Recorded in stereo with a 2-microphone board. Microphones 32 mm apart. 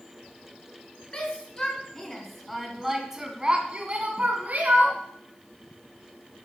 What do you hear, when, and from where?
1.1 s a shout: 30° left (ahead or behind), 3 m; by 5.0 s 55° right (ahead or behind), 3 m